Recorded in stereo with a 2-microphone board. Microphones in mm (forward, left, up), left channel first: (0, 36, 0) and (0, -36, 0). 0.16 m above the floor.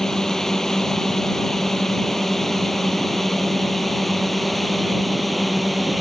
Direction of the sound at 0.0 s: 5° left (ahead or behind).